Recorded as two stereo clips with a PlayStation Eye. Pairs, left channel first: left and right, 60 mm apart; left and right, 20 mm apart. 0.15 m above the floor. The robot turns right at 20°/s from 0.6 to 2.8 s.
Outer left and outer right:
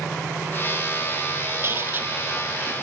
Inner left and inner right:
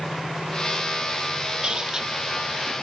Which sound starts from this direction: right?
A squeak, at 1.6 s.